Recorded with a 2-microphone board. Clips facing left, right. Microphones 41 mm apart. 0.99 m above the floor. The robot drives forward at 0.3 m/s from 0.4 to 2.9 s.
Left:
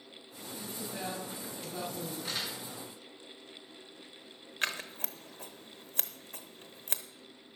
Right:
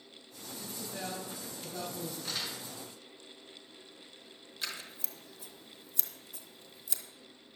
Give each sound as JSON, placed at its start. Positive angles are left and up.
{"t": 0.6, "sound": "a woman speaking", "side_deg": 0, "distance_m": 5.5}
{"t": 2.2, "sound": "crumpling", "side_deg": 10, "distance_m": 3.5}
{"t": 4.6, "sound": "scissors", "side_deg": 50, "distance_m": 0.9}